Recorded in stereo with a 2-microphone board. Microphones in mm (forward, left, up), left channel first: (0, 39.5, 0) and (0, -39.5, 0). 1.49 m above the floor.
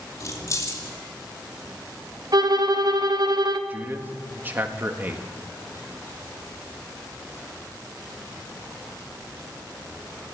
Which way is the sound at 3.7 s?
25° right (ahead or behind).